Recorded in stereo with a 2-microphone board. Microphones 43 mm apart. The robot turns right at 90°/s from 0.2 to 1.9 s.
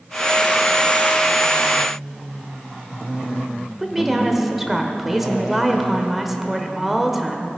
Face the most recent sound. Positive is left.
turn(degrees=-5)  # may be behind; listen again after turning